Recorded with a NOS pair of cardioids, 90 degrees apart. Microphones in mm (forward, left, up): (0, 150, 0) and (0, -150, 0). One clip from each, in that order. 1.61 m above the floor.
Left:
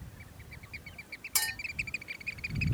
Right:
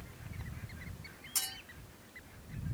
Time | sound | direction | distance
1.4 | a clink | 65° left | 1.7 m